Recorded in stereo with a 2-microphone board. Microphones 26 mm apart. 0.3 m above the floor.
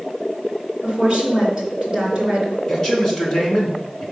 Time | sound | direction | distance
0.8 | a woman speaking | 25° right (ahead or behind) | 3.5 m
2.7 | a man speaking | 10° left (ahead or behind) | 3.5 m